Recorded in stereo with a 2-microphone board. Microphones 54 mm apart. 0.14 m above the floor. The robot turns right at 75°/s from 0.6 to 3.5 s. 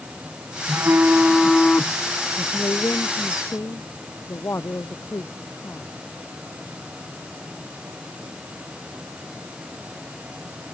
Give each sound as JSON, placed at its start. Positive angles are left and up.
{"t": 0.7, "sound": "a phone buzzing", "azimuth_deg": -60}
{"t": 2.4, "sound": "a man speaking", "azimuth_deg": 35}